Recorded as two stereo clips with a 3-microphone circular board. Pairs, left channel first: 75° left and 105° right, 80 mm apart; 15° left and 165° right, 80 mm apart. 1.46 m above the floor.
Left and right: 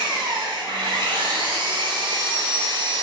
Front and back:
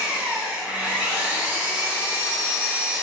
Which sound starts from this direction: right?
An engine running, at 0.0 s.